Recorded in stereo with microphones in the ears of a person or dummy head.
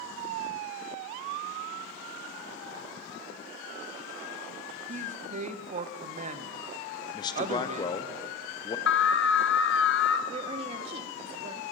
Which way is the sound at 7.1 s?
25° left (ahead or behind).